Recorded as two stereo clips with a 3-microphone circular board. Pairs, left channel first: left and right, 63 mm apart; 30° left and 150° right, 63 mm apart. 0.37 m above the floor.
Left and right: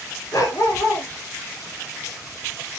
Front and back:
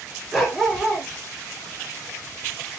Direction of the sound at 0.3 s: 120° left.